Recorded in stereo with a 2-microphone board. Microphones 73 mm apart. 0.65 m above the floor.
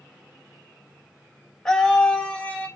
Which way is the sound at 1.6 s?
5° left (ahead or behind).